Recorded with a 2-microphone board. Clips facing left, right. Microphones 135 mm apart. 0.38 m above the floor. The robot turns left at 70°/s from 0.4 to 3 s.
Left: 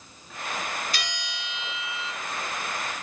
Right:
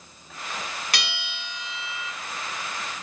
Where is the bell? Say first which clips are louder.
Right 1 dB; 85° right, 3 m; by 2.1 s 170° right, 3 m.